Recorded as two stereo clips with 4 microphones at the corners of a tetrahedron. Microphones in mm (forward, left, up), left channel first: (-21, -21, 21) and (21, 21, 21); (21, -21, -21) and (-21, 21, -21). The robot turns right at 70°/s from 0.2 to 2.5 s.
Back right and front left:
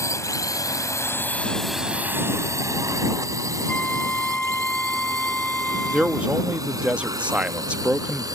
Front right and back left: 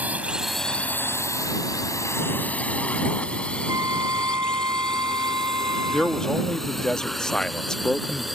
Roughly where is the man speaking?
Ahead.